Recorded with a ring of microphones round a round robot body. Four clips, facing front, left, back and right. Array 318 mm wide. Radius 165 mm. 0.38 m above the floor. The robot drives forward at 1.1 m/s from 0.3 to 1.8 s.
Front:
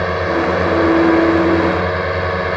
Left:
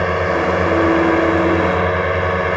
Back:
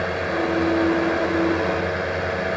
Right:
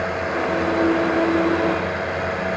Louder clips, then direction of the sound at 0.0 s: Left 6 dB, front 6 dB; 55° left.